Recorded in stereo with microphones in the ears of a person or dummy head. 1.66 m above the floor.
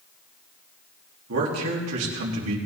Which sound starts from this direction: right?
A man speaking, at 1.3 s.